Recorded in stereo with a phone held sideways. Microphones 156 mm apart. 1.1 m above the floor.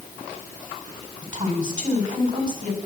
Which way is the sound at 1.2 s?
55° right (ahead or behind).